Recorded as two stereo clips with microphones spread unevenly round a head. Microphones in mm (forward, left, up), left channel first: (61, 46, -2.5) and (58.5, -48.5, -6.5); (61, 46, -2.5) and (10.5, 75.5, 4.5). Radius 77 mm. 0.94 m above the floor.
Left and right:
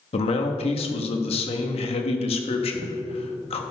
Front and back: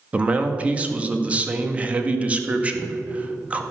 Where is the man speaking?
80° left, 1.2 m.